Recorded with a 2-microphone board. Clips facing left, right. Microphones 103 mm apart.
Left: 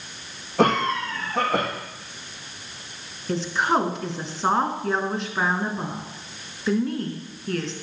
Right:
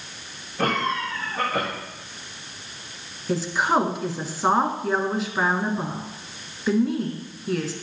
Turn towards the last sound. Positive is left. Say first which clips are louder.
# right 1 dB
turn(degrees=-5)  # may be behind; listen again after turning